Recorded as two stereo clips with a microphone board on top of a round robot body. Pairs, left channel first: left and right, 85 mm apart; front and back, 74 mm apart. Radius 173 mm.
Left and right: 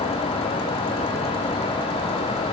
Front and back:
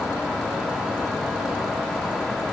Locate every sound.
Only background noise.